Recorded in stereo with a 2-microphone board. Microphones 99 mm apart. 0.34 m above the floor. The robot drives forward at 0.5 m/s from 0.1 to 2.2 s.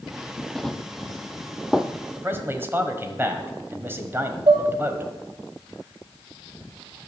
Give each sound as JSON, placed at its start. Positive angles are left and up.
{"t": 0.6, "sound": "running footsteps", "side_deg": 5, "distance_m": 0.5}
{"t": 2.2, "sound": "a man speaking", "side_deg": -25, "distance_m": 1.4}
{"t": 4.5, "sound": "dishes clattering", "side_deg": -60, "distance_m": 1.6}